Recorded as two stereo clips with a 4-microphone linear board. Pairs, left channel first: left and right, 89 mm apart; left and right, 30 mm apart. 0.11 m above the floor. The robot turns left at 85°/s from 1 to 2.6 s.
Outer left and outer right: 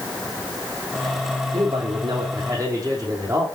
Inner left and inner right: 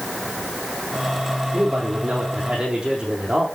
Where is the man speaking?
45° right, 4 m; by 3.5 s 140° right, 4 m.